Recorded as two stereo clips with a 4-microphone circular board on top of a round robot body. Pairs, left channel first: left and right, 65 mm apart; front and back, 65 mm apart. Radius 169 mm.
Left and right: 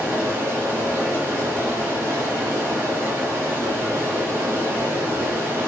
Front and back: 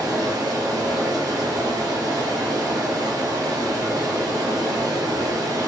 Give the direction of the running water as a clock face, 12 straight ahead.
5 o'clock.